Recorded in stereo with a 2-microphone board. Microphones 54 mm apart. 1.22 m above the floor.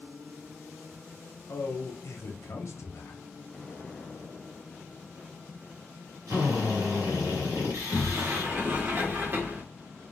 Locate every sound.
1.5 s a man speaking: 55° left (ahead or behind), 0.8 m
3.5 s an explosion: 25° left (ahead or behind), 0.9 m
6.3 s a drill: 75° right (ahead or behind), 1.4 m
7.7 s a sliding door: 35° right (ahead or behind), 0.8 m